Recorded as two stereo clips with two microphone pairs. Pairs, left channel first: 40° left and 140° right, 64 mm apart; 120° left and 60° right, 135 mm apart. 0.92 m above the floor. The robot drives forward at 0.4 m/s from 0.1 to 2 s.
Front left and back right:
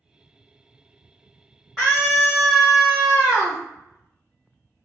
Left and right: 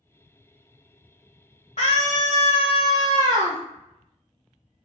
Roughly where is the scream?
Behind left.